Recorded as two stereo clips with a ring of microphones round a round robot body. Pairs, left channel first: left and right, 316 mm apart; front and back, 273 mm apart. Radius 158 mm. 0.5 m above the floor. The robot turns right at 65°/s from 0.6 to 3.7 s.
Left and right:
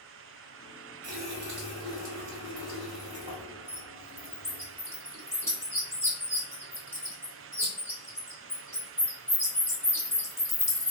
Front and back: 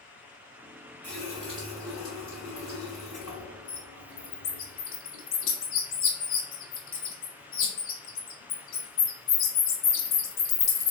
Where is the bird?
10° left, 0.9 m.